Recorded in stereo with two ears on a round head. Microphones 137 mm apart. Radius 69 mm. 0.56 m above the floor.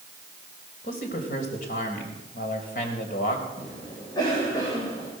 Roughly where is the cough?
Left.